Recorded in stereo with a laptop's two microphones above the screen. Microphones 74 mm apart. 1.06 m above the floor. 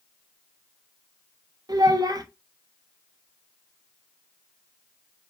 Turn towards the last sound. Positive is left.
turn(degrees=-60)  # may be behind; listen again after turning